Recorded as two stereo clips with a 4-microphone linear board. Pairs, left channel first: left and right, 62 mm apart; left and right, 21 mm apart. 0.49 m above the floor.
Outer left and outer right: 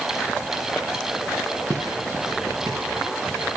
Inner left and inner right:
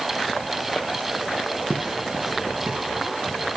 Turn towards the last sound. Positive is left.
turn(degrees=-65)  # may be behind; listen again after turning